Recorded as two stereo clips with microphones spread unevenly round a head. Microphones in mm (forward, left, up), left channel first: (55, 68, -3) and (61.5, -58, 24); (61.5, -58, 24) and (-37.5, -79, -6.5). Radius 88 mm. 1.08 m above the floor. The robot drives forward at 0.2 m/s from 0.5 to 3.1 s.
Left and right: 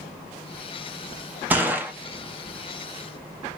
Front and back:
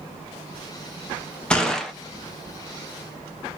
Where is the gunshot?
35° right, 0.5 m; by 1.9 s 50° right, 0.5 m.